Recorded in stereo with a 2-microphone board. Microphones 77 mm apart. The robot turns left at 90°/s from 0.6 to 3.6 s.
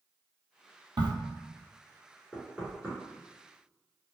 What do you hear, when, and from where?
1.0 s a crack: 70° right (ahead or behind), 0.7 m; by 1.1 s 75° right (ahead or behind), 0.7 m
2.3 s knocking: 10° left (ahead or behind), 1.3 m; by 3.0 s 15° right (ahead or behind), 1.3 m